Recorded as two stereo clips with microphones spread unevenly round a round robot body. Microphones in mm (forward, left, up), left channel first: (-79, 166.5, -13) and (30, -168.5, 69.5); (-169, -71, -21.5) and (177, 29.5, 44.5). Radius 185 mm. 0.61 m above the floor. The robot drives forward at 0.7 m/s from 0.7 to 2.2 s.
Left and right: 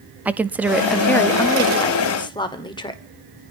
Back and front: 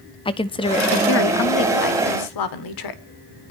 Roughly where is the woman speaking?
Behind.